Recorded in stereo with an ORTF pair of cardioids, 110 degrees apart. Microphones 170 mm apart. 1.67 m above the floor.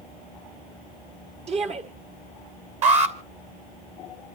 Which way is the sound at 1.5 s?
40° right.